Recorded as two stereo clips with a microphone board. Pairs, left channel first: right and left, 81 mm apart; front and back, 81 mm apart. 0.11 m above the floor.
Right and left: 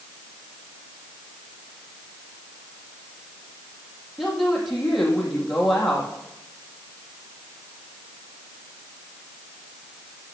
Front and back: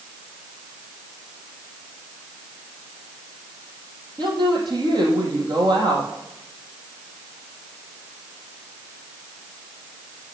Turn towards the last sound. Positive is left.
turn(degrees=180)